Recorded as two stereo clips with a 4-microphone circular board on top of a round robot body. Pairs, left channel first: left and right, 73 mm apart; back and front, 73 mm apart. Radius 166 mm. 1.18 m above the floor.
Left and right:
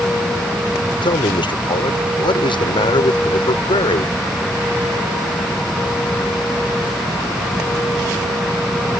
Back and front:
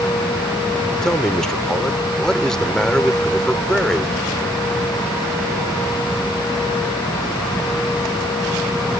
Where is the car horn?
I don't hear a car horn.